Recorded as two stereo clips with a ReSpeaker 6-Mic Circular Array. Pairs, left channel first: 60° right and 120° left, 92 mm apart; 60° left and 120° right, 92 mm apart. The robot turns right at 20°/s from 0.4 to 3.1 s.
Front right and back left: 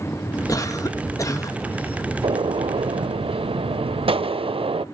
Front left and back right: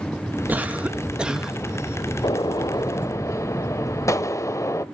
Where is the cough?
60° right, 1.1 m; by 1.6 s 40° right, 1.1 m.